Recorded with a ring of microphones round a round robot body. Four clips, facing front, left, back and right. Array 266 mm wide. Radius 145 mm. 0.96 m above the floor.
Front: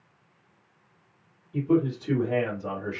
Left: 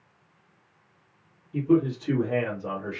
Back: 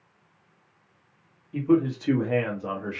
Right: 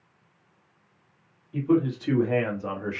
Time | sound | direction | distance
1.5 | a man speaking | 150° right | 1.4 m